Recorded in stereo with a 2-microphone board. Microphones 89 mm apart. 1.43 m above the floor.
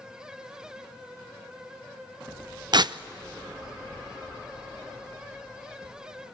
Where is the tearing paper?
55° right (ahead or behind), 0.5 m.